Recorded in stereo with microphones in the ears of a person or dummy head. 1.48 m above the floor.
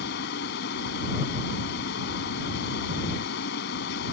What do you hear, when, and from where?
0.0 s a fan: 70° left (ahead or behind)